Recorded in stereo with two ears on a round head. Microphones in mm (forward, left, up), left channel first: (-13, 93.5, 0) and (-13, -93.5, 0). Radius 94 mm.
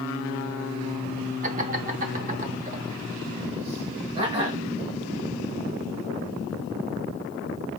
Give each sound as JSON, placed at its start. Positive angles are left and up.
{"t": 1.4, "sound": "laughter", "side_deg": -35, "distance_m": 0.9}